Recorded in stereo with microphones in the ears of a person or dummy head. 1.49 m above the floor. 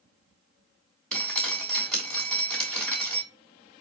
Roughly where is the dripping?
Centre.